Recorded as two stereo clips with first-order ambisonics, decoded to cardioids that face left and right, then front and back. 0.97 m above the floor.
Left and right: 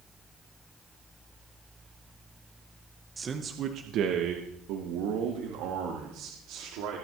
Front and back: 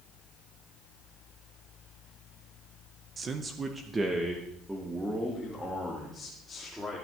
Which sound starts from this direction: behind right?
A man speaking, at 3.2 s.